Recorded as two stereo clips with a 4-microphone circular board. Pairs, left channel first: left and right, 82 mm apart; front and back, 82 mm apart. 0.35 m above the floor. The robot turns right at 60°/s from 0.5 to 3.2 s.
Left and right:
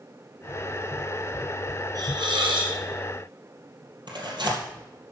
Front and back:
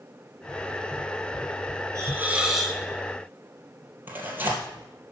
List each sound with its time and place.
1.9 s a hiss: 130° right, 1.8 m; by 2.8 s 80° right, 1.8 m
4.1 s tearing paper: 115° right, 2 m